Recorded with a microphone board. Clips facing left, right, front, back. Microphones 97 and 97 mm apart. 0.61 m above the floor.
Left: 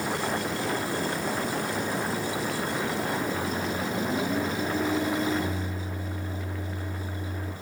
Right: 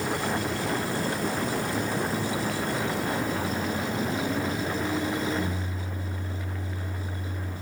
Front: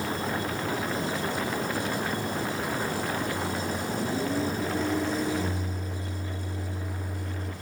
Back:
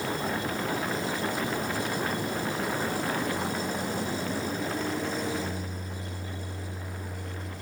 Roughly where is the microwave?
Ahead.